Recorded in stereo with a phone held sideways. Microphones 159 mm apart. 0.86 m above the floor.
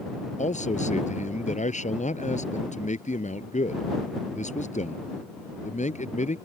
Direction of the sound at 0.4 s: 50° left (ahead or behind).